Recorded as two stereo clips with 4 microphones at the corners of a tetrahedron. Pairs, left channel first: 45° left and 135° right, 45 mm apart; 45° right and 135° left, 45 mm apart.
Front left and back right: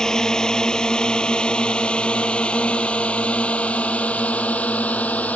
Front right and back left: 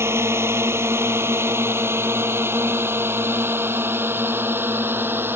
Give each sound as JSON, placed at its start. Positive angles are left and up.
{"t": 0.0, "sound": "a drone", "azimuth_deg": 120}